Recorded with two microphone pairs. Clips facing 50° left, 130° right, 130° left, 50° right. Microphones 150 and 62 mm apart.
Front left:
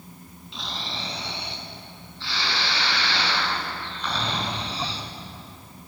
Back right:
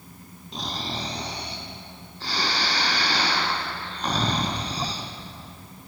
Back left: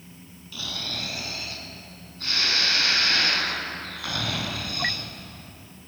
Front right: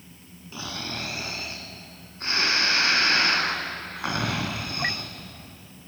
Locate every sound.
0.5 s snoring: 100° right, 2.5 m